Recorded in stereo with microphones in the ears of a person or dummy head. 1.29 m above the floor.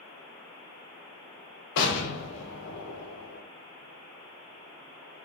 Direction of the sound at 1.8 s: 70° left (ahead or behind).